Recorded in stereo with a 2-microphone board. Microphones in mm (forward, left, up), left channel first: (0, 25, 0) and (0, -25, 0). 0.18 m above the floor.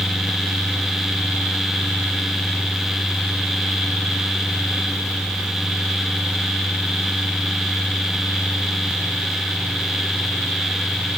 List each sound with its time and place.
Only background noise.